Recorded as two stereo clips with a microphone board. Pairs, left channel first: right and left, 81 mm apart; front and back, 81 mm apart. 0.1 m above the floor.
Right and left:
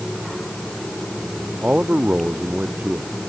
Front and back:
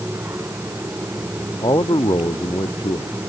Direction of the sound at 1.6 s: 15° left.